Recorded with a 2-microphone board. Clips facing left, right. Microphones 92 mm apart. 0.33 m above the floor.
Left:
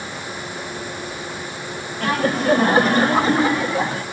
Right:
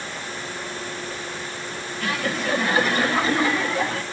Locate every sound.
2.0 s laughter: 40° left (ahead or behind), 1.4 m; by 4.0 s 20° left (ahead or behind), 1.7 m